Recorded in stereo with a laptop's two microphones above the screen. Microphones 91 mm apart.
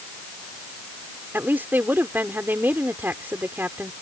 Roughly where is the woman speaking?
Right.